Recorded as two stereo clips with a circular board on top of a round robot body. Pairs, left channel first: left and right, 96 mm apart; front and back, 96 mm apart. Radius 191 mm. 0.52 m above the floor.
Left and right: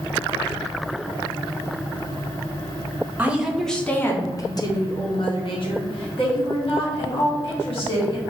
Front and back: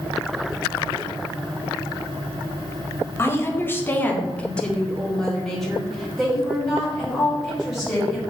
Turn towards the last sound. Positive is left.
turn(degrees=95)